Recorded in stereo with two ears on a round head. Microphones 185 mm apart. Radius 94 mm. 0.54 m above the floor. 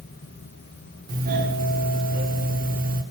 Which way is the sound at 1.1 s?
45° right (ahead or behind).